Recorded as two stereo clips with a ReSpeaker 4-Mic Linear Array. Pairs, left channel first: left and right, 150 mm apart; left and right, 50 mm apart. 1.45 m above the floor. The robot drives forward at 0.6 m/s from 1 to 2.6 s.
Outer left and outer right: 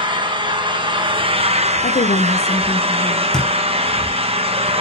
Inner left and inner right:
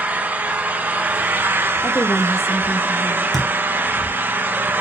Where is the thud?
5° left (ahead or behind), 1.6 m.